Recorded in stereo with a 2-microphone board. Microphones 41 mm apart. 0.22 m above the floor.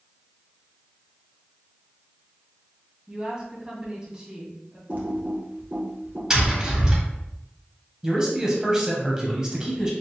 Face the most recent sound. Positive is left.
turn(degrees=-15)  # may be behind; listen again after turning